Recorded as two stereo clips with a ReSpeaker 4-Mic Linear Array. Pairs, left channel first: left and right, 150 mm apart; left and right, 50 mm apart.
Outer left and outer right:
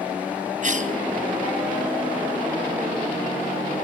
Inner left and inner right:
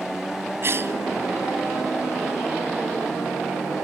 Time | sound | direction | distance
0.6 | a cough | 55° right (ahead or behind) | 3 m